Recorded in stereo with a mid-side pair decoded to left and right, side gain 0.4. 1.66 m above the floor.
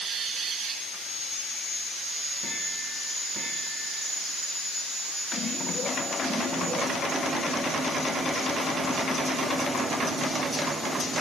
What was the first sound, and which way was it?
Only background noise.